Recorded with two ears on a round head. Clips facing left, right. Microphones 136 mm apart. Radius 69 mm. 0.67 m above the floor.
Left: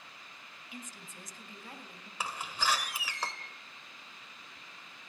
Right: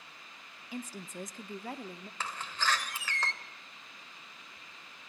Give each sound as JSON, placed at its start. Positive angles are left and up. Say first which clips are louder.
{"t": 0.7, "sound": "a woman speaking", "louder": "right 8 dB", "side_deg": -25, "distance_m": 0.7}
{"t": 2.2, "sound": "a door slam", "louder": "left 1 dB", "side_deg": 10, "distance_m": 1.6}